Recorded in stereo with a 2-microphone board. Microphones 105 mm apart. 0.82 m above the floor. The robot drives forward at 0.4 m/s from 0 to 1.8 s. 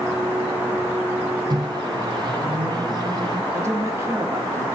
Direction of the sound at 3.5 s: 25° right (ahead or behind).